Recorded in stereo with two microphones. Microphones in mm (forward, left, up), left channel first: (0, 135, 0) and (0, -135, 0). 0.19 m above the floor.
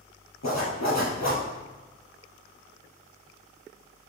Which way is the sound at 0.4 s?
75° left (ahead or behind).